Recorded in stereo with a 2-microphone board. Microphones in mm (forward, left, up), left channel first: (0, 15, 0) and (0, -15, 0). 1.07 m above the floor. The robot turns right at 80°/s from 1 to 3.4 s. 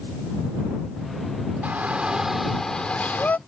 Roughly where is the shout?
Ahead right.